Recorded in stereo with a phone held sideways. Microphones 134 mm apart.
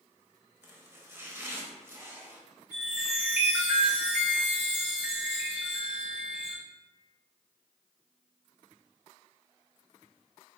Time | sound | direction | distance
0.6 | chopping | 20° right (ahead or behind) | 0.7 m
2.7 | a chime | 10° right (ahead or behind) | 1.9 m